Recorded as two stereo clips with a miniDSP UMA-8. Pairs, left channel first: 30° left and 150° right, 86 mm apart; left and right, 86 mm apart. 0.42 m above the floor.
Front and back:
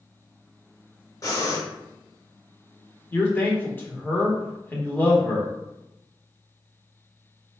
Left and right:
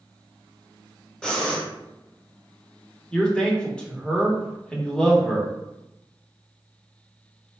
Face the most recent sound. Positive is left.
turn(degrees=30)